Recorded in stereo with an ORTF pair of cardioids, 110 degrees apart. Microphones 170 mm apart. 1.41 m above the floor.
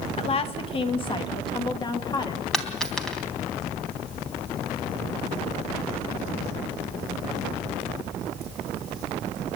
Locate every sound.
0.2 s a woman speaking: 35° left, 1.9 m; by 2.4 s 25° left, 3 m
2.5 s a dropped coin: 5° left, 3.5 m